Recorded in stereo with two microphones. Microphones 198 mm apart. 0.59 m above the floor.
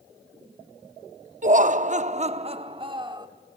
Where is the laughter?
40° right (ahead or behind), 0.7 m; by 3.3 s 20° right (ahead or behind), 1.1 m.